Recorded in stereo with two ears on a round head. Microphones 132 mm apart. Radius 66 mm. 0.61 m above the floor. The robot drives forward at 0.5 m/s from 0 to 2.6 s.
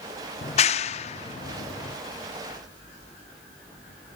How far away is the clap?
About 0.6 m.